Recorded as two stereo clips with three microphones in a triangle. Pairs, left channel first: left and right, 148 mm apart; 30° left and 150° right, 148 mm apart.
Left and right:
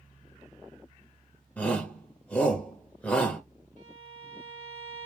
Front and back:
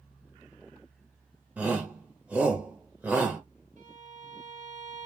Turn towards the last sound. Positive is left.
turn(degrees=-120)